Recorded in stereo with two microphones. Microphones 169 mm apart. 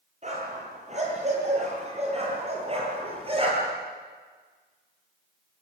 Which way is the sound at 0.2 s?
45° right (ahead or behind).